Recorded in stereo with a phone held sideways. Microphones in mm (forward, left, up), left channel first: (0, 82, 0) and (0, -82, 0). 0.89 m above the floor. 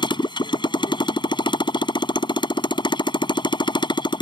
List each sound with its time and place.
0.0 s a motorcycle: 30° left (ahead or behind)